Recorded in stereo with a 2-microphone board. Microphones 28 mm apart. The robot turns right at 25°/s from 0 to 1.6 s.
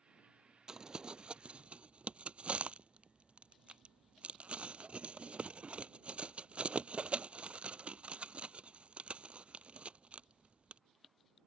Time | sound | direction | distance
0.7 | crumpling | 20° right (ahead or behind) | ?